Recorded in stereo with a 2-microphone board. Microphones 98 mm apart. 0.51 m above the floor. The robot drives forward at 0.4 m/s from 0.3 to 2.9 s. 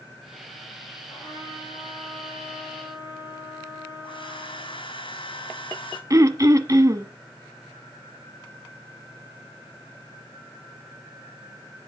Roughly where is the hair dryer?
Left.